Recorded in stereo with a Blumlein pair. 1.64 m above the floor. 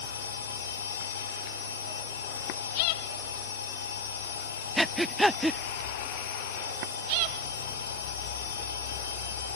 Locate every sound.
0.0 s a machine running: 65° left
4.8 s breathing: straight ahead